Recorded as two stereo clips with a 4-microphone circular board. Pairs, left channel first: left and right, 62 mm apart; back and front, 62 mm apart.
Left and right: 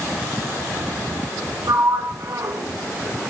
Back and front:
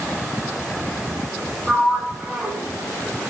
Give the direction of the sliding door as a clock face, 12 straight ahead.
3 o'clock.